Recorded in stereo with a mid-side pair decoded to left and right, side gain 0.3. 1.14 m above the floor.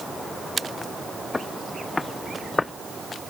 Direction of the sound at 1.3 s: 35° left.